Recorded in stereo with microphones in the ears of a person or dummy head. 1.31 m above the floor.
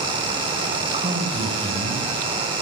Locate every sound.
0.9 s a man speaking: 35° right (ahead or behind), 5.5 m